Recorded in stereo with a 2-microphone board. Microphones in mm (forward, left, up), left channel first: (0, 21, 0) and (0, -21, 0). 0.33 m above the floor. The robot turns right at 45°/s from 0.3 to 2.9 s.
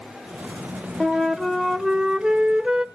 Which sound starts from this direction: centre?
A flute, at 1.0 s.